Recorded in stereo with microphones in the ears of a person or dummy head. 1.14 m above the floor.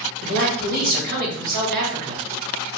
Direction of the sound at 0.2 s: 55° right (ahead or behind).